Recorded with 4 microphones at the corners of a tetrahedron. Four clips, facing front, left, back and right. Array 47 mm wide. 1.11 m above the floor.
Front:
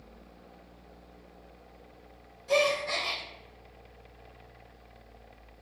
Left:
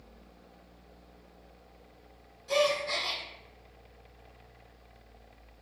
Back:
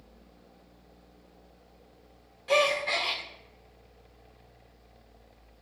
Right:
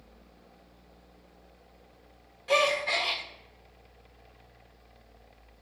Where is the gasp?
140° right, 1.4 m.